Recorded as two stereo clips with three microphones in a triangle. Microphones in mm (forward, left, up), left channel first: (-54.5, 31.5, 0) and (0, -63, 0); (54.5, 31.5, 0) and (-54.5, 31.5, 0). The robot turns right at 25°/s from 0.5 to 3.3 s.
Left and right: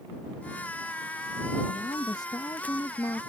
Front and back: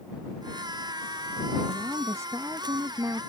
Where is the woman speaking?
120° left; by 3.2 s 155° left.